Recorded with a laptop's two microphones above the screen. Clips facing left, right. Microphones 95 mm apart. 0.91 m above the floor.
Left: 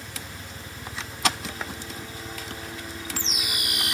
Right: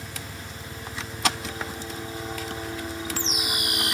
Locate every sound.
0.0 s a helicopter: 25° right (ahead or behind)